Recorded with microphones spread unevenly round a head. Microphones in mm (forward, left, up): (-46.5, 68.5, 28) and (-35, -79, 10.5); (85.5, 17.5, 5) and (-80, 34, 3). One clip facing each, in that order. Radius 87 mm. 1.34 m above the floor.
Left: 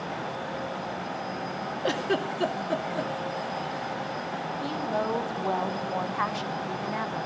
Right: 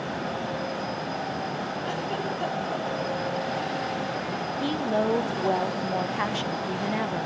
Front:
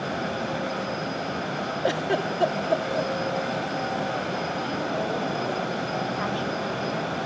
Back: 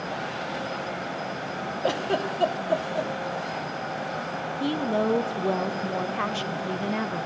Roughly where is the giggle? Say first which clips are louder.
Left 6 dB, front 1 dB; left.